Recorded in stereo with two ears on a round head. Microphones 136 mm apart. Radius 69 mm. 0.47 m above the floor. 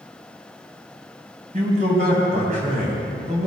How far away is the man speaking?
About 3 m.